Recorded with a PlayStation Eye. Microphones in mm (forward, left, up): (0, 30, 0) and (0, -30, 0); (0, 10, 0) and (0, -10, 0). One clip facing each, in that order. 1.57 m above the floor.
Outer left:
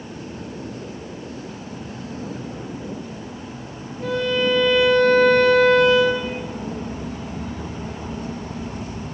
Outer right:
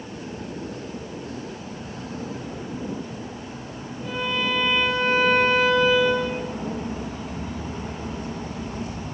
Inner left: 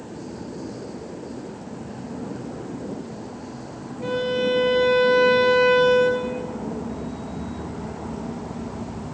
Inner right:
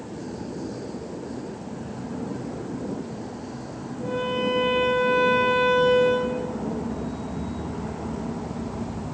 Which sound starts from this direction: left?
A violin, at 4.0 s.